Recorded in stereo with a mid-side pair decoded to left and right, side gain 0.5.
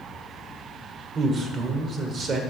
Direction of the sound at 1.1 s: 50° right.